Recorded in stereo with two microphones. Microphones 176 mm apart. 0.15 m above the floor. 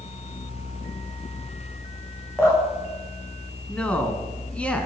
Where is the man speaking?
5° left (ahead or behind), 2 m.